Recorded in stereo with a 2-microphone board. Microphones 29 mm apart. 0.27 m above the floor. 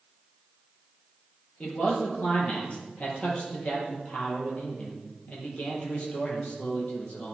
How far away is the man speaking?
About 6 m.